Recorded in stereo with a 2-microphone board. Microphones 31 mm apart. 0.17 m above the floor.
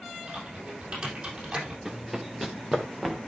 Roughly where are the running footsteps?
Centre.